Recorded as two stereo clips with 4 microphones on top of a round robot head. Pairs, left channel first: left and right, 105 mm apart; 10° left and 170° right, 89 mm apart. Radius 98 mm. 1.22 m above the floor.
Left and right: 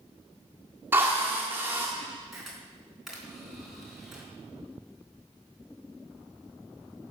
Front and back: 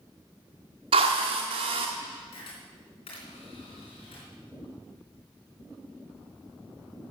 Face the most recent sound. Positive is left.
turn(degrees=-5)